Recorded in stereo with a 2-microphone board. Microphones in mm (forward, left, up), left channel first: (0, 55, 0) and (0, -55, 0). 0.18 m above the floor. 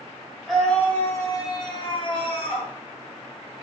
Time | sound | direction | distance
0.5 | a scream | centre (ahead or behind) | 1.5 m